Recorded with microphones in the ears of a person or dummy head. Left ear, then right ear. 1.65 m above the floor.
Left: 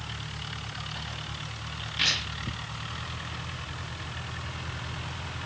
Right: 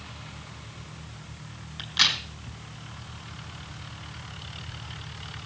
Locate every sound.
1.8 s a crack: 60° right (ahead or behind), 5 m